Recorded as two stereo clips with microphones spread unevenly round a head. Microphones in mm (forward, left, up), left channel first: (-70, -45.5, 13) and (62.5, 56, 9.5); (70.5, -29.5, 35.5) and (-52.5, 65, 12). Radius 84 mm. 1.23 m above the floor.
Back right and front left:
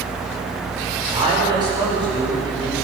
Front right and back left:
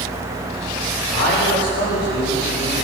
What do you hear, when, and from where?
1.1 s a man speaking: 25° right, 5 m; by 2.8 s 30° right, 6.5 m